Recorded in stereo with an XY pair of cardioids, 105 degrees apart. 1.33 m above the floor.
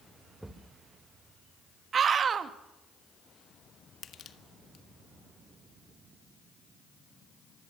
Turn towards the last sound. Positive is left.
turn(degrees=55)